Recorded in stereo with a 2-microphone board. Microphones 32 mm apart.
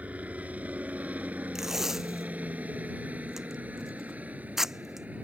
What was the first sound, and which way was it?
A helicopter, 55° right (ahead or behind).